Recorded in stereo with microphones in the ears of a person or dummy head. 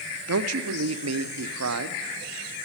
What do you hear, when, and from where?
0.3 s a man speaking: 80° right, 0.6 m